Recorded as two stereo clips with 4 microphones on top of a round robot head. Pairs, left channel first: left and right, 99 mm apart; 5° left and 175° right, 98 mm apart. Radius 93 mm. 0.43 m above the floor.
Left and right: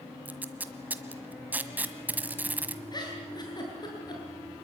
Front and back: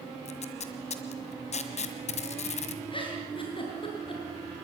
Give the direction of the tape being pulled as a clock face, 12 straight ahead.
1 o'clock.